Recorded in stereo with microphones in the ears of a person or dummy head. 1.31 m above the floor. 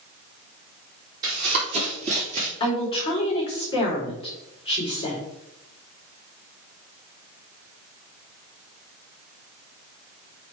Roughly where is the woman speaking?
Left.